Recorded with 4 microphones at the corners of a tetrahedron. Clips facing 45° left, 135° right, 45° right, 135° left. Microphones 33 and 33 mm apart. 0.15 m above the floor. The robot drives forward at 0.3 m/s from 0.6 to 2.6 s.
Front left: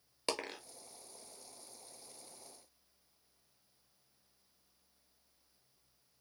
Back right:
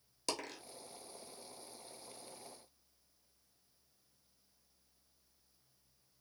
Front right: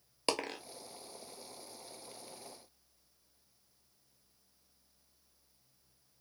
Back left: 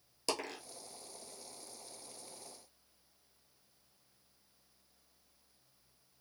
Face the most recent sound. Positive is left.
turn(degrees=-15)